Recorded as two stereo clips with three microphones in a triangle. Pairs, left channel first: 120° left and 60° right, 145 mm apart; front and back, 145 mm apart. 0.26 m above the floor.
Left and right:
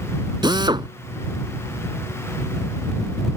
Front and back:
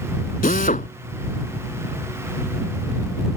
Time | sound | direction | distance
0.4 | a drill | 5° right | ?